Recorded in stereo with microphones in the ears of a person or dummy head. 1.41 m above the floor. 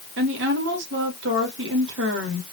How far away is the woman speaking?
About 2.5 m.